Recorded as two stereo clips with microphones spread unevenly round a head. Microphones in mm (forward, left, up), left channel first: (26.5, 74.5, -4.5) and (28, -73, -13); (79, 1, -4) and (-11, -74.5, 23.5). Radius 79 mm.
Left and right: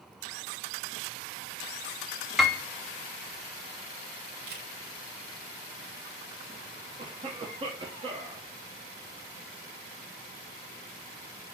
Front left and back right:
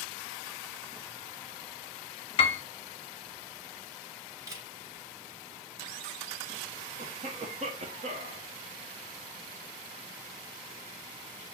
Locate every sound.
2.4 s a piano: 5° left, 0.6 m
4.5 s a camera shutter: 80° right, 1.5 m
7.0 s a cough: 130° right, 0.7 m